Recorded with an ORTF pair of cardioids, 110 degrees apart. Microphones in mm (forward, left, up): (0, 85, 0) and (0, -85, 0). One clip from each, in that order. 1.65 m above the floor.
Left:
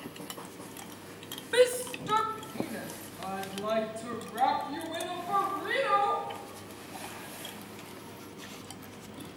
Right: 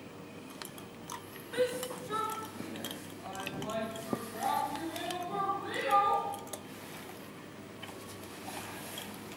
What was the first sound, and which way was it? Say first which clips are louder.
A shout: left 8 dB; 65° left.